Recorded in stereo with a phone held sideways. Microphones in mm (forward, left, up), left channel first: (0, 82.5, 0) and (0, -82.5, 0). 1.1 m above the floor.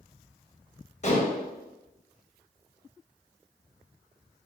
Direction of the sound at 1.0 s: 45° left (ahead or behind).